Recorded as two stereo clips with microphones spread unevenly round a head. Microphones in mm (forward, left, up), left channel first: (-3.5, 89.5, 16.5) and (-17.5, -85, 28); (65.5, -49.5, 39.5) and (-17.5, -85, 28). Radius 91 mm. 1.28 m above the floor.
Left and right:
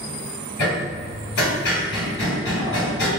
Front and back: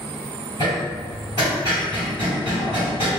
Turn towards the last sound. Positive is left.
turn(degrees=95)